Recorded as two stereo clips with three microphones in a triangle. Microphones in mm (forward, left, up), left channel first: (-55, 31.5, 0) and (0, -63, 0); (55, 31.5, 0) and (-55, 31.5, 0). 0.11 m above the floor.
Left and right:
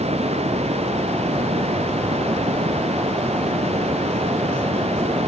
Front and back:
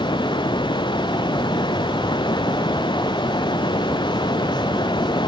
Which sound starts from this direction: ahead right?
Running water, at 0.0 s.